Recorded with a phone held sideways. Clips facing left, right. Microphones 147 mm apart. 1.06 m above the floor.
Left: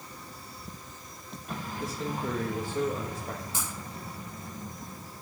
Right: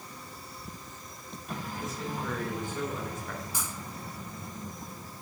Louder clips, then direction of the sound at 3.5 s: Left 1 dB; 20° left (ahead or behind).